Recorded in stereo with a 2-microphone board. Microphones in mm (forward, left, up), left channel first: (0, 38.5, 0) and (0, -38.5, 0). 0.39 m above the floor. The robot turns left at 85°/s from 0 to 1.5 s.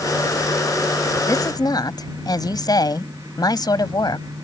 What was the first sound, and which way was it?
A woman speaking, 40° left (ahead or behind).